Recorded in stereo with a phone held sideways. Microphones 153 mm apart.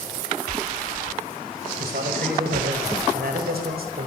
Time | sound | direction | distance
1.8 | a man speaking | 80° right | 7.5 m